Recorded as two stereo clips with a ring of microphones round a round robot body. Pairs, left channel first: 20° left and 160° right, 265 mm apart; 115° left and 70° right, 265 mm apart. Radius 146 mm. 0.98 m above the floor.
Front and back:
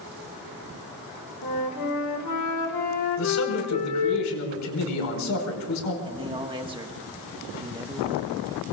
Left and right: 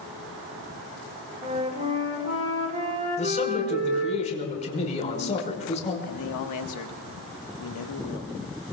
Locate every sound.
1.4 s a flute: 5° right, 2.5 m
3.2 s a man speaking: 45° left, 5 m
6.0 s a man speaking: 130° left, 1.6 m